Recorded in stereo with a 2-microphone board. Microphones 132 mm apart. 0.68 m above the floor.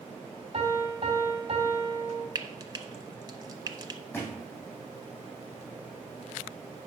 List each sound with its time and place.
0.5 s a piano: 45° right (ahead or behind), 3 m
2.4 s frying: 30° right (ahead or behind), 0.7 m
4.1 s a thud: 15° left (ahead or behind), 3.5 m